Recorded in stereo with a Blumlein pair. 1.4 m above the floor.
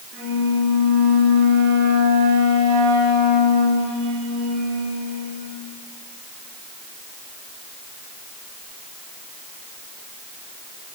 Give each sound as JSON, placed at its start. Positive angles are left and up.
{"t": 0.1, "sound": "a flute", "azimuth_deg": -40, "distance_m": 5.5}